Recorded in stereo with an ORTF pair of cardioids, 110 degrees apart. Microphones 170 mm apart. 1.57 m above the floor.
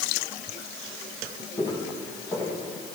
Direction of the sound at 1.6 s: 25° left.